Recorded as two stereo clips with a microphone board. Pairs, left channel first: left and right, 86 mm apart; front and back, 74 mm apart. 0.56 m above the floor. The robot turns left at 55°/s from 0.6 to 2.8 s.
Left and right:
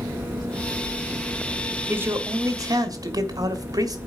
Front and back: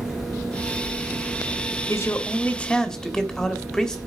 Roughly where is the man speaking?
Ahead right.